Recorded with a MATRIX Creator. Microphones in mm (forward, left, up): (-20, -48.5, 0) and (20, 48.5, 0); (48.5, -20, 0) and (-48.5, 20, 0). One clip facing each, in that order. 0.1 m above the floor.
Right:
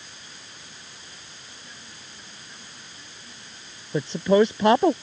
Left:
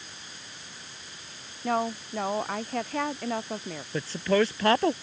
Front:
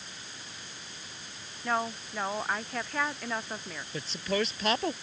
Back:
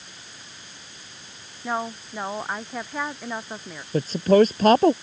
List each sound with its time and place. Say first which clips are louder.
1.6 s a woman speaking: left 20 dB, back 2 dB; 80° left
3.9 s a woman speaking: right 6 dB, back 14 dB; 175° right